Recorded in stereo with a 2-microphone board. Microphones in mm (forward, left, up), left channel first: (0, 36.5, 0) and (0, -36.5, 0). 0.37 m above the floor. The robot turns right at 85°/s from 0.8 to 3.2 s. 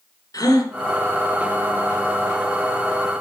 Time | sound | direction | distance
0.3 | a gasp | 55° left (ahead or behind) | 2 m